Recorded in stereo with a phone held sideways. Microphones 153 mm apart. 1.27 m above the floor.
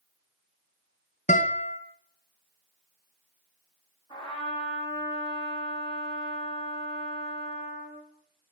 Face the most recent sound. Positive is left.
turn(degrees=30)  # may be behind; listen again after turning